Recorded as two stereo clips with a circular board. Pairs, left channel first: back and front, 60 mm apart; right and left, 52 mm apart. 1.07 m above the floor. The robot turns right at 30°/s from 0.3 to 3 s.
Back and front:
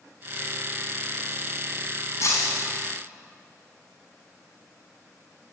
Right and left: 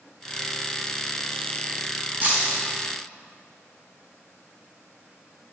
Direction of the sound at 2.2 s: 145° left.